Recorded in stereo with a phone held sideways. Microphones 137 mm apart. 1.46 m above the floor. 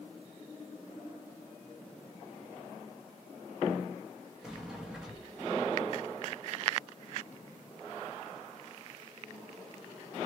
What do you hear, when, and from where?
4.4 s a sliding door: 5° right (ahead or behind), 0.8 m